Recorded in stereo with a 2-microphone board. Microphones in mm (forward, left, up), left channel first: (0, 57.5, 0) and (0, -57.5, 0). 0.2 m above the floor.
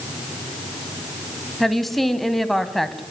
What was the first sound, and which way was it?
A woman speaking, centre (ahead or behind).